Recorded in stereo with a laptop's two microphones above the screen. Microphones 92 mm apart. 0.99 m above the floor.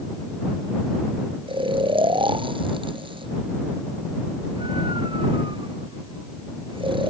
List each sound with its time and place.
1.5 s snoring: 70° right (ahead or behind)